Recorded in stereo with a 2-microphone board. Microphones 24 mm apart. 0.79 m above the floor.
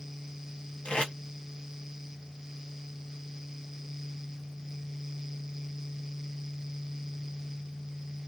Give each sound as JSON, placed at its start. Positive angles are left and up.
{"t": 0.8, "sound": "tape being pulled", "side_deg": 50, "distance_m": 1.3}